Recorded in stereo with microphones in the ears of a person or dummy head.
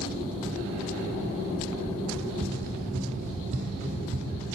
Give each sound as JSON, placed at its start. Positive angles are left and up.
{"t": 2.1, "sound": "running footsteps", "side_deg": -45, "distance_m": 1.5}